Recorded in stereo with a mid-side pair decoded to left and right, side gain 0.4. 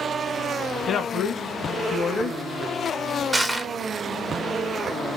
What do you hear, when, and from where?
0.9 s a woman speaking: 55° left, 1.2 m
3.3 s crushing: 25° right, 0.9 m